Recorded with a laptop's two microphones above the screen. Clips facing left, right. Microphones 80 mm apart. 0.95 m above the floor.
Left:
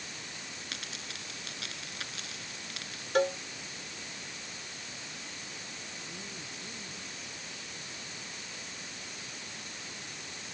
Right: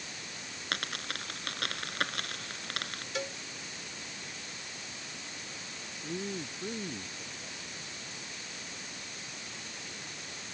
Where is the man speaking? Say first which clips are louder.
Right 8 dB; 55° right (ahead or behind).